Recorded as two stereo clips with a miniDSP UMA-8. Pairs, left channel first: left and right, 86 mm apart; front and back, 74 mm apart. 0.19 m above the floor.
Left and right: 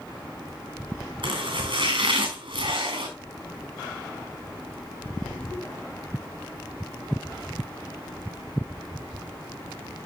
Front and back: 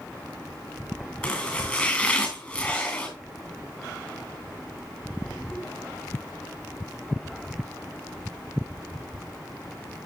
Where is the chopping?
80° right, 3.5 m.